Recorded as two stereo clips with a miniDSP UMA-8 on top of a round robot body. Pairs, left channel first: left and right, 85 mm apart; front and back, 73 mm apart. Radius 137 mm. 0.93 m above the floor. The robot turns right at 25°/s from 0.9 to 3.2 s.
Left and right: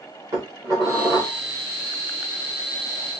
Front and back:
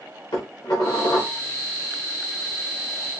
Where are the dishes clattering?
35° right, 1.8 m; by 1.4 s 20° right, 1.8 m.